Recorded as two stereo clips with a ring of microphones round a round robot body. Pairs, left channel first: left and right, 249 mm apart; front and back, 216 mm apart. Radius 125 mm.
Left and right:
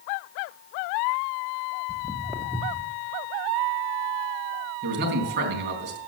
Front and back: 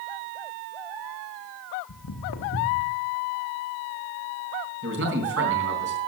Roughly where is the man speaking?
Behind right.